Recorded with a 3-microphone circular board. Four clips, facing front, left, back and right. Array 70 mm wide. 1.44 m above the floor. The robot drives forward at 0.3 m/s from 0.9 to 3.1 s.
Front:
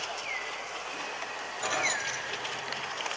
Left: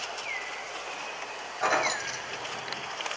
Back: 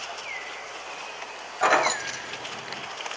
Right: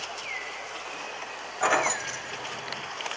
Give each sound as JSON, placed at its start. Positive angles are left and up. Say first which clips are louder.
{"t": 1.6, "sound": "keys jangling", "louder": "right 2 dB, back 10 dB", "azimuth_deg": -165, "distance_m": 0.5}